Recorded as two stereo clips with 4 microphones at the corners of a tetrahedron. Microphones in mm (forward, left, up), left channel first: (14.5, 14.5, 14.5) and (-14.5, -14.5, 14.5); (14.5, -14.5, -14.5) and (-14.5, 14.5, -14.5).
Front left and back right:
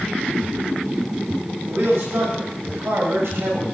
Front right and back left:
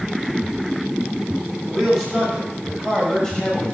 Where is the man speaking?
140° right, 6.5 m; by 3.6 s 120° right, 6 m.